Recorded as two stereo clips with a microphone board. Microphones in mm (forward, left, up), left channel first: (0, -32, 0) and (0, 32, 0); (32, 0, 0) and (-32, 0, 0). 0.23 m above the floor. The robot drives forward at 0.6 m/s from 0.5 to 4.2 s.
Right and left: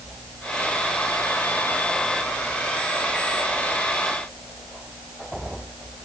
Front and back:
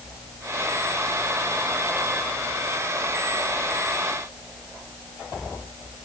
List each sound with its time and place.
Only background noise.